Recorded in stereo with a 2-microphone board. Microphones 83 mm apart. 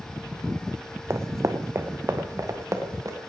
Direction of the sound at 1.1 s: 30° right (ahead or behind).